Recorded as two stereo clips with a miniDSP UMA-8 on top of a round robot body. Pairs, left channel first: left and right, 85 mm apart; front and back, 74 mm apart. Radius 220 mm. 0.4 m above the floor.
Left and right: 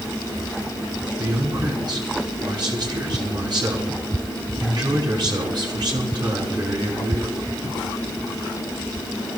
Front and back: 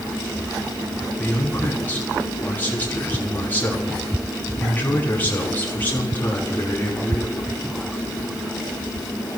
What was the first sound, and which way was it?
A man speaking, 60° right.